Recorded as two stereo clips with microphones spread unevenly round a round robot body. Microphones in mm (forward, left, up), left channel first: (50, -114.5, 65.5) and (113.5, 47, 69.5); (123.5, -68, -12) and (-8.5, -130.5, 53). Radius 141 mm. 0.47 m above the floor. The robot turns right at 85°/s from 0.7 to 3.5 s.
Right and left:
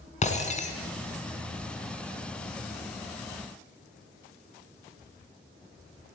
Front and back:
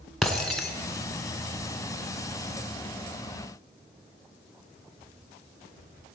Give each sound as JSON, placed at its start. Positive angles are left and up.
{"t": 0.2, "sound": "breaking glass", "azimuth_deg": -60, "distance_m": 2.5}